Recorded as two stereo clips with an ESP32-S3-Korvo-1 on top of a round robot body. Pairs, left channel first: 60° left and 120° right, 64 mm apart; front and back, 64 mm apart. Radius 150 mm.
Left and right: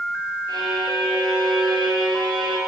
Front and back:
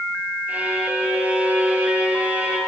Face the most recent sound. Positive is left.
turn(degrees=-115)